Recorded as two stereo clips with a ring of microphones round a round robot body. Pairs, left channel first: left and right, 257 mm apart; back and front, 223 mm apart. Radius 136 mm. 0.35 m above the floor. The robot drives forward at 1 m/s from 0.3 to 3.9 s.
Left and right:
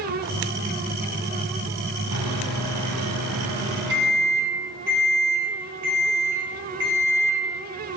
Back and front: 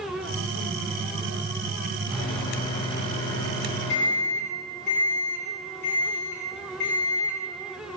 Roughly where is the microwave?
Right.